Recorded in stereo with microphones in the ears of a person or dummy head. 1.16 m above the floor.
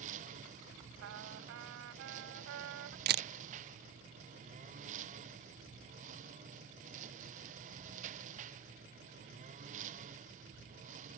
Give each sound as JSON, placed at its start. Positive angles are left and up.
{"t": 0.0, "sound": "a lawn mower", "side_deg": -40}
{"t": 1.0, "sound": "a trumpet", "side_deg": -80}
{"t": 3.1, "sound": "a camera shutter", "side_deg": -40}